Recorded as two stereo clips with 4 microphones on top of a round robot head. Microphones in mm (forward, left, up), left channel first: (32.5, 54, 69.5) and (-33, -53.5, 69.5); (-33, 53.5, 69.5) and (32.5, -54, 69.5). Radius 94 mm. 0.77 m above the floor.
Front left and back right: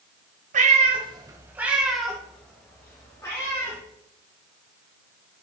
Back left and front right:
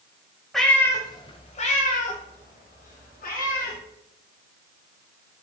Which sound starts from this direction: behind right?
A cat meowing, at 0.5 s.